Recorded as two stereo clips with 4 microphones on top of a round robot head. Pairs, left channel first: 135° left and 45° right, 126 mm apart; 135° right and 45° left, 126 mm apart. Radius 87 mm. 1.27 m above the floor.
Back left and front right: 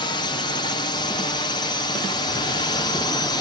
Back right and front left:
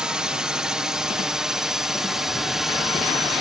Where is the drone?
125° left; by 3.4 s 130° left.